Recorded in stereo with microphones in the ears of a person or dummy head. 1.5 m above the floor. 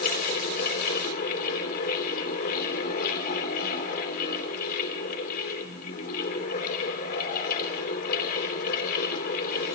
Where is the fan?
50° left (ahead or behind), 3 m.